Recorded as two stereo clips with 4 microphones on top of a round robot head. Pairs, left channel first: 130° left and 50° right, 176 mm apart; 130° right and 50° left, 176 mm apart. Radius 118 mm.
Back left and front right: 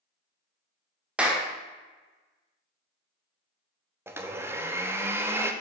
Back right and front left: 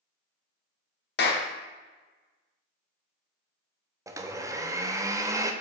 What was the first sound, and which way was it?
A clap, 135° right.